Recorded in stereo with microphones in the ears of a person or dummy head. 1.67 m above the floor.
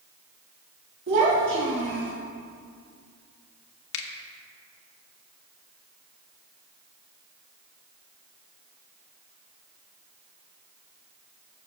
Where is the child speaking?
55° right (ahead or behind), 1.7 m; by 2.1 s 20° right (ahead or behind), 1.6 m.